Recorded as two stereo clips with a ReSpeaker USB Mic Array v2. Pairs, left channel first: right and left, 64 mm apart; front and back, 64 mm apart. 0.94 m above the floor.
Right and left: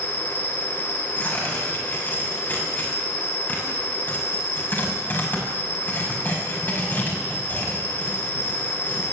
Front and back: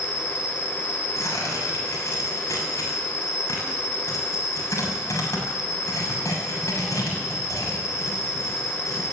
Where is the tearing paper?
35° right, 6.5 m.